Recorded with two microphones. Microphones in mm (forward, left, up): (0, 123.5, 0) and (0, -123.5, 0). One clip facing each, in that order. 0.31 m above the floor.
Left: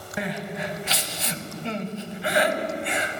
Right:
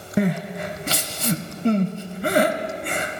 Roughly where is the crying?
Right.